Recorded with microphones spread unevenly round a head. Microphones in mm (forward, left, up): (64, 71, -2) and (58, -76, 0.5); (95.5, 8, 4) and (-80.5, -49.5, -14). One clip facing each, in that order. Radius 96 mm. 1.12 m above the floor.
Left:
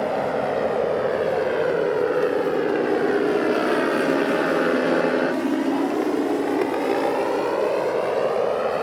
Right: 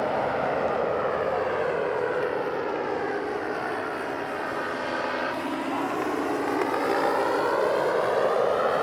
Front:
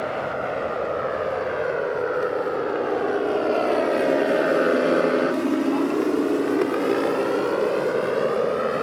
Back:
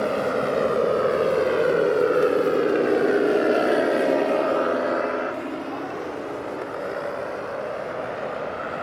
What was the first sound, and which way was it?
A motorcycle, 155° left.